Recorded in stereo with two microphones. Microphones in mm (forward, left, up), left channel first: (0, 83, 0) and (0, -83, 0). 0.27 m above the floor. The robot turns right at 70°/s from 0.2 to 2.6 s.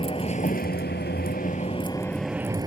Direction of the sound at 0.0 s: 35° left.